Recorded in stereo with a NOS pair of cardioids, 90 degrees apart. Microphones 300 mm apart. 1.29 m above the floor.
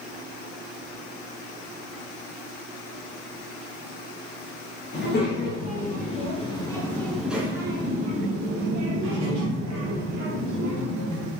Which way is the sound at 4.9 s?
35° left.